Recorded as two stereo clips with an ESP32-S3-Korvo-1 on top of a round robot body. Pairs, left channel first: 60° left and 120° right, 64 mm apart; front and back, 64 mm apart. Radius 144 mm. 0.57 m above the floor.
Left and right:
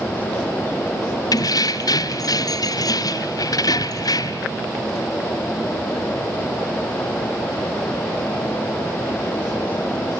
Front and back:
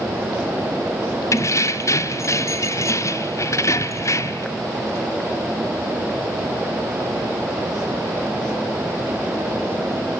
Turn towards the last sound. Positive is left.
turn(degrees=40)